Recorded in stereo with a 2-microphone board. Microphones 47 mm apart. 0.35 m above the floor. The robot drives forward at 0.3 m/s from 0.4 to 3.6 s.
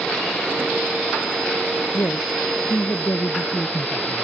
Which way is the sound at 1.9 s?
75° left (ahead or behind).